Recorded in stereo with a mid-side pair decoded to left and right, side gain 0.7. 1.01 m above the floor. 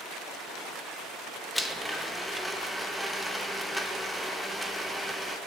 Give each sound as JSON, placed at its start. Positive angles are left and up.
{"t": 1.6, "sound": "a blender", "azimuth_deg": -5, "distance_m": 0.8}